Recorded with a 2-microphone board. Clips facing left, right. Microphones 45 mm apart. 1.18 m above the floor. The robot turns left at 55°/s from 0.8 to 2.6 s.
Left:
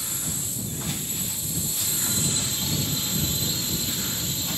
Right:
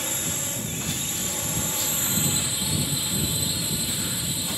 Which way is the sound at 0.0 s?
70° right.